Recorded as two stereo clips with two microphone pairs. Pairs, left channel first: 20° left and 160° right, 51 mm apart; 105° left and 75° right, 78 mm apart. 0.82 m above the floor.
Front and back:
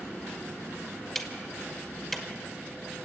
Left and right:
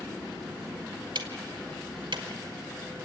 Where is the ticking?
65° right, 1.8 m.